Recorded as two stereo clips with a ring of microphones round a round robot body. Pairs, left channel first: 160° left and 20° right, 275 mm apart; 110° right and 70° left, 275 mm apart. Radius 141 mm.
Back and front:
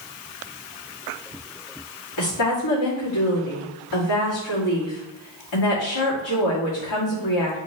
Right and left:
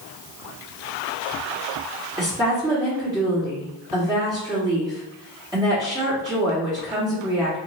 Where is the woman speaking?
145° left, 2 m.